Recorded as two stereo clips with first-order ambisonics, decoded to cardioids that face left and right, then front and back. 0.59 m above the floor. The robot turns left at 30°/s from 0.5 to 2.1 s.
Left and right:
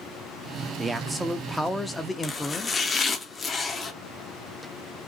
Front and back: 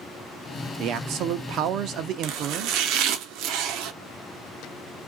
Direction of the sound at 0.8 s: 160° right.